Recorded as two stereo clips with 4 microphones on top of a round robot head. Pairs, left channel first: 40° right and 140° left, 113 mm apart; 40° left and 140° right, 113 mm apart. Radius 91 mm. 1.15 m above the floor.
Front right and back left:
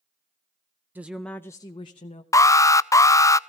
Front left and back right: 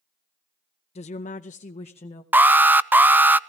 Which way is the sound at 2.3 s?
80° right.